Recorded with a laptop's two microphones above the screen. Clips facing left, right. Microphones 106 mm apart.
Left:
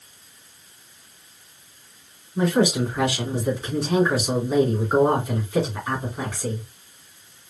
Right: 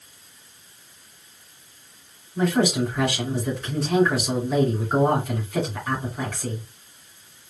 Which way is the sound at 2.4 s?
5° left (ahead or behind).